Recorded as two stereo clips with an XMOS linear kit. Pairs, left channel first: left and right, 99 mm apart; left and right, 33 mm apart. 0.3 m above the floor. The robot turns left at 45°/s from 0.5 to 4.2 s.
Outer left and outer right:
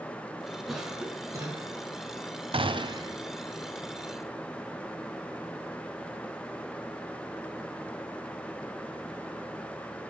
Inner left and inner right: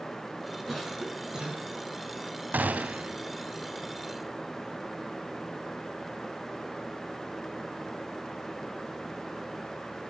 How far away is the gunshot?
About 0.5 m.